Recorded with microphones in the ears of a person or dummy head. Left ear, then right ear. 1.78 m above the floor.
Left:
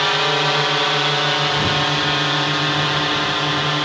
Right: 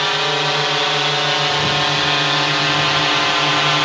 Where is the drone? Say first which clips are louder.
Even; 5° right (ahead or behind); by 3.9 s 30° right (ahead or behind).